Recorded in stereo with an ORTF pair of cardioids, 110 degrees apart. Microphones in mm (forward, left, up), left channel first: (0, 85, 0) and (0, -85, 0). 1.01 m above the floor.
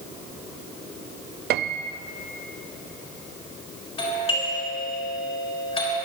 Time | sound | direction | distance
1.5 | a piano | 70° right | 0.6 m
4.0 | a doorbell | 35° left | 6 m